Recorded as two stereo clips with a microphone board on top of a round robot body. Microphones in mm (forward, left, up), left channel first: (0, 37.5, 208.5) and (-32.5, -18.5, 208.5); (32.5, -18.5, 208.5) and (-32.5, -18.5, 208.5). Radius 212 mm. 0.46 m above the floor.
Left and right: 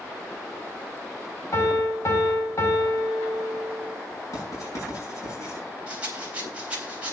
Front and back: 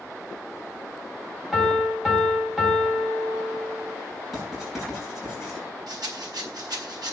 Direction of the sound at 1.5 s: 95° left.